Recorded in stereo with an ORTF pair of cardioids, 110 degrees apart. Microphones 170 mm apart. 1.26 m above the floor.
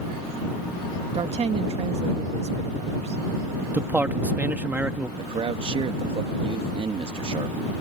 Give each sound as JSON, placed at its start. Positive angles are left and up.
{"t": 1.1, "sound": "a woman speaking", "azimuth_deg": -40}
{"t": 3.7, "sound": "a man speaking", "azimuth_deg": -10}
{"t": 5.2, "sound": "a man speaking", "azimuth_deg": -35}